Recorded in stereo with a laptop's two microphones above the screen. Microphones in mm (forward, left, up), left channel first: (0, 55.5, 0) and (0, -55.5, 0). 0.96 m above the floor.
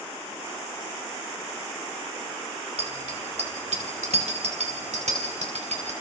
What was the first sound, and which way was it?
A bicycle bell, 90° right.